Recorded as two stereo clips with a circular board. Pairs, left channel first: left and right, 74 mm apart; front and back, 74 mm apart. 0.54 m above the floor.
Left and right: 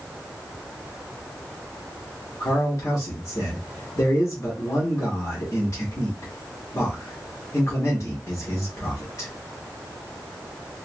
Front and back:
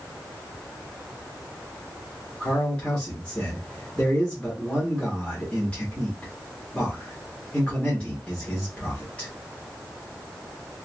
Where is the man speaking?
70° left, 1.1 m.